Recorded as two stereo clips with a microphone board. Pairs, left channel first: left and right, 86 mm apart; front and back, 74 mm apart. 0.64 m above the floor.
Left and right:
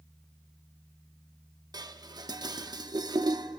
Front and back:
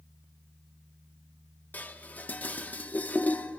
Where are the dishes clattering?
65° right, 0.5 m.